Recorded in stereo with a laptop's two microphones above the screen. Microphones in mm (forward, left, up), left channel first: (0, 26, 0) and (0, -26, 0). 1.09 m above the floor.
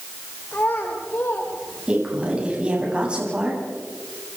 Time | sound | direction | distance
0.5 | a child speaking | 40° left (ahead or behind) | 2 m
1.9 | a woman speaking | 20° right (ahead or behind) | 9 m